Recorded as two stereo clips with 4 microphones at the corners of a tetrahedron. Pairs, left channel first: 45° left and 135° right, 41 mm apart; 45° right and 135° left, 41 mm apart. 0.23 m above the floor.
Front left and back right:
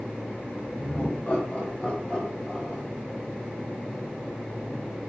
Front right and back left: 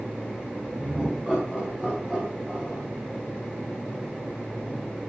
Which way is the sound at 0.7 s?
70° left.